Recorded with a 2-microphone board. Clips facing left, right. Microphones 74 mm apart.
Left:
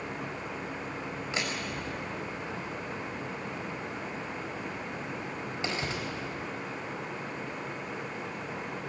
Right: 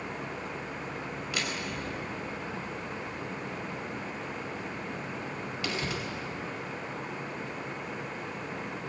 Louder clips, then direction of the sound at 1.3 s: Even; 30° left (ahead or behind).